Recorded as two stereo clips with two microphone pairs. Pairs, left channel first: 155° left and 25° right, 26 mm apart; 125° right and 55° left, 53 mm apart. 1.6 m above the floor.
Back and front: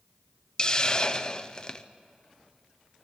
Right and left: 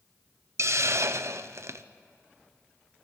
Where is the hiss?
90° left, 0.6 m.